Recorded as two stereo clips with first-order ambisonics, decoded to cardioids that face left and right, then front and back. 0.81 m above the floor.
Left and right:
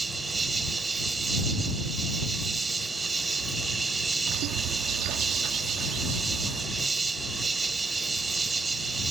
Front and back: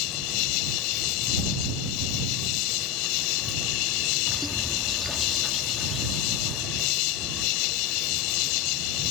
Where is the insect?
15° right.